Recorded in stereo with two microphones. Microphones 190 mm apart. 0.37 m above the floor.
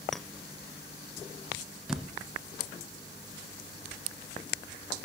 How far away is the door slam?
About 4.5 m.